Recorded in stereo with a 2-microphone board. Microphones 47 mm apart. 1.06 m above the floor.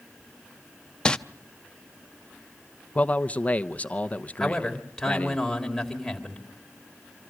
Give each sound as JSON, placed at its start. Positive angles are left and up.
{"t": 1.1, "sound": "crumpling", "side_deg": 20, "distance_m": 0.7}
{"t": 3.0, "sound": "a man speaking", "side_deg": 30, "distance_m": 0.9}
{"t": 4.4, "sound": "a man speaking", "side_deg": 10, "distance_m": 3.5}